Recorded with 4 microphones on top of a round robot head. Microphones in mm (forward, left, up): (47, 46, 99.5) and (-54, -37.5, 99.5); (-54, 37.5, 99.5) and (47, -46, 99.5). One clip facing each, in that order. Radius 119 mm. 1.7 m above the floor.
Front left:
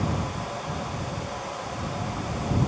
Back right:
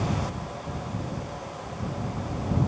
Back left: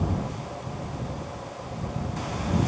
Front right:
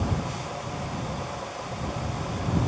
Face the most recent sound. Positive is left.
No sound to turn to.